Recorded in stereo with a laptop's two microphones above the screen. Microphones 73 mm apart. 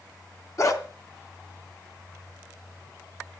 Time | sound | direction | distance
0.6 | a dog barking | 45° left (ahead or behind) | 2.5 m